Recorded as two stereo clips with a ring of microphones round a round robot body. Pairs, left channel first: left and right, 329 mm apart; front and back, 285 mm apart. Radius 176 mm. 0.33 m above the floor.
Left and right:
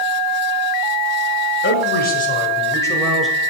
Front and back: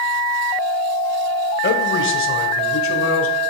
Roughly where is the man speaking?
Ahead left.